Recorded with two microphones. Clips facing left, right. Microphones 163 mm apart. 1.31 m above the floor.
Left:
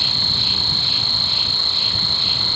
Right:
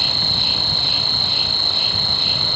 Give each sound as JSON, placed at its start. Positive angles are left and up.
{"t": 0.0, "sound": "an insect", "side_deg": -60}